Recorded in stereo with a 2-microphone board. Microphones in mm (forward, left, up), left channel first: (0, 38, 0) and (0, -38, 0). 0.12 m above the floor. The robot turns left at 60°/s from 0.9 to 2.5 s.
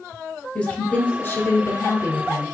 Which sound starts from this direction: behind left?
A woman speaking, at 0.6 s.